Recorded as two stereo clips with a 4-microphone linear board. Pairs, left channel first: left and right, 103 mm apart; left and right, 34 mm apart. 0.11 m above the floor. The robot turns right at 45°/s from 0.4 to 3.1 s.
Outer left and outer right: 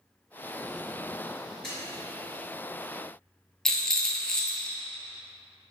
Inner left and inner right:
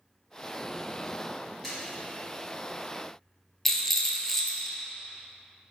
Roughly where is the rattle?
Centre.